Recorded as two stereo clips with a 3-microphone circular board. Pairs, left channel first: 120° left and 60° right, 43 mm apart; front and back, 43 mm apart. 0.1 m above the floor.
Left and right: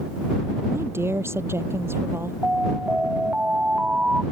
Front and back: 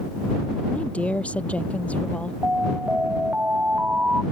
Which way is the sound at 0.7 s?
60° right.